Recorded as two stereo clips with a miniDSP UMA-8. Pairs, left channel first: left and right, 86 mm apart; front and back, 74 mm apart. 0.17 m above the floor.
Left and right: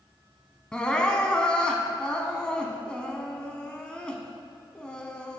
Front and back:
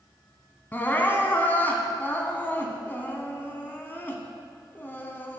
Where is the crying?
25° left, 0.7 m.